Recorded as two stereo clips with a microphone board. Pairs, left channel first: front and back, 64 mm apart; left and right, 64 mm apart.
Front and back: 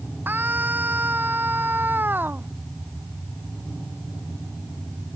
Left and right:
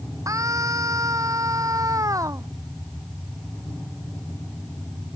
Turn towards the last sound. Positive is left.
turn(degrees=-120)